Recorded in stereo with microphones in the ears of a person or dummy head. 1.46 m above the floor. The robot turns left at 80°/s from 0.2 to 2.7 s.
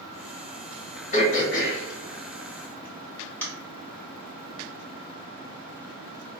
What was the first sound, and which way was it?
Throat clearing, 45° left (ahead or behind).